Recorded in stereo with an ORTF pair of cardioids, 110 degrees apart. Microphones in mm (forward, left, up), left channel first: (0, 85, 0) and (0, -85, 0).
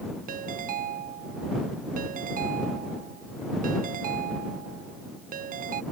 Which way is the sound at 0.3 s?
55° right.